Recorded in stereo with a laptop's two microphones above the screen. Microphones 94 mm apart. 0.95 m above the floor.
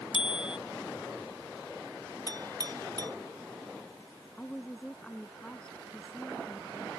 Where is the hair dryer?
No hair dryer in this recording.